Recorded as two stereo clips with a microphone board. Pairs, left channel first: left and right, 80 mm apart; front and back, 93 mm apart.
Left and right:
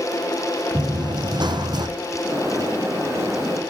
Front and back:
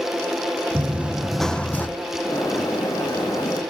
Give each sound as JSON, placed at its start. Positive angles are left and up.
{"t": 0.8, "sound": "running footsteps", "azimuth_deg": -115, "distance_m": 0.8}
{"t": 2.2, "sound": "a bird", "azimuth_deg": -40, "distance_m": 4.0}